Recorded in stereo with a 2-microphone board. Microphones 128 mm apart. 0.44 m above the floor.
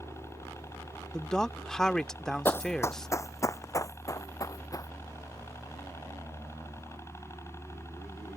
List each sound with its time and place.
0.0 s a helicopter: 20° left (ahead or behind)
1.1 s a man speaking: 5° left (ahead or behind)
2.5 s running footsteps: 20° left (ahead or behind); by 4.9 s 30° left (ahead or behind)